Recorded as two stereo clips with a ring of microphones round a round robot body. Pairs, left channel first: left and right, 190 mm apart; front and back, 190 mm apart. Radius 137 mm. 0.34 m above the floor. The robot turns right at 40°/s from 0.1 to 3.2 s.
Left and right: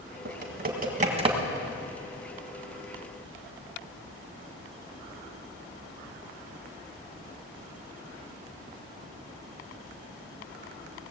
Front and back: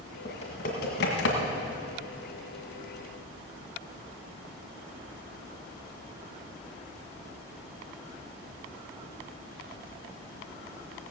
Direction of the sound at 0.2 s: 70° right.